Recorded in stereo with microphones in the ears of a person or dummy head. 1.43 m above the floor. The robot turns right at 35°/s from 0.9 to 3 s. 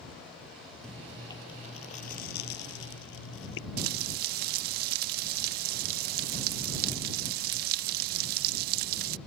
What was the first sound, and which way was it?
Chewing, 5° left.